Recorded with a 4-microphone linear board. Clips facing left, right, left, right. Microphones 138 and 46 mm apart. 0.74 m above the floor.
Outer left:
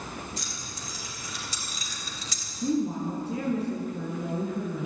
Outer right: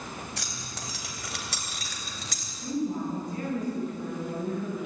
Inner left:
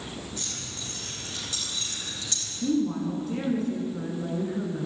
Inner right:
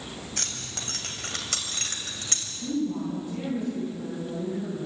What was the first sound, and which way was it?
Keys jangling, 75° right (ahead or behind).